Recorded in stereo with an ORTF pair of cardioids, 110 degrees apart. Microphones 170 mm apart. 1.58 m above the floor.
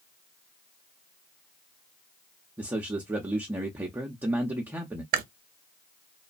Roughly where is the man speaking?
Ahead.